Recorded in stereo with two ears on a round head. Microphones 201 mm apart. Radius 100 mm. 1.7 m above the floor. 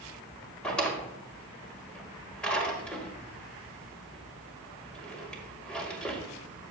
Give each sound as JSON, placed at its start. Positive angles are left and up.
{"t": 0.6, "sound": "a drawer", "side_deg": 5, "distance_m": 2.0}